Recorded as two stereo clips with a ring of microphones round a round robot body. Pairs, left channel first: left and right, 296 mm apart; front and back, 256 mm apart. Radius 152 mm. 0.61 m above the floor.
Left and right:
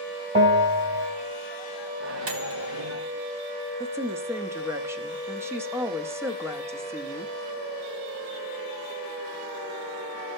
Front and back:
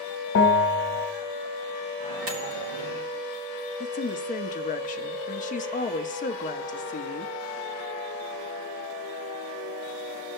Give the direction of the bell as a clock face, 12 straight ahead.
1 o'clock.